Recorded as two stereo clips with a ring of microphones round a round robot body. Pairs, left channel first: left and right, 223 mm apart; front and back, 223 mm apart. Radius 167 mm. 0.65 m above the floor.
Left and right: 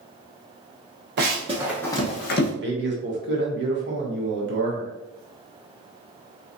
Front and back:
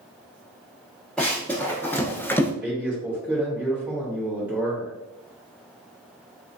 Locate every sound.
1.2 s running footsteps: 90° right, 0.7 m; by 2.5 s 80° left, 0.8 m
2.6 s a man speaking: 95° right, 1.1 m